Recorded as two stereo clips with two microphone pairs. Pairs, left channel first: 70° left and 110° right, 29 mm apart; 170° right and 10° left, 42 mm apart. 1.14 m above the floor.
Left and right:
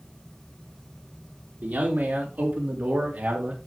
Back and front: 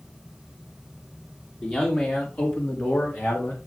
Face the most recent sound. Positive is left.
turn(degrees=-145)